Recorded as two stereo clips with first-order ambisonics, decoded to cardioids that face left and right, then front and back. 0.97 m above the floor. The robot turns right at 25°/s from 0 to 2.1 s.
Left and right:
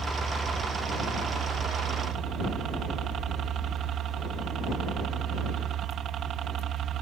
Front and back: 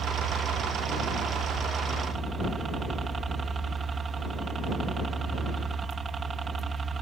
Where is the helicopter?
170° right; by 7.0 s 120° right.